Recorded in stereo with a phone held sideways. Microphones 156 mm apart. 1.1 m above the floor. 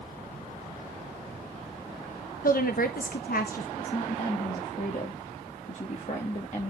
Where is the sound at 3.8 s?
50° left (ahead or behind), 1.6 m.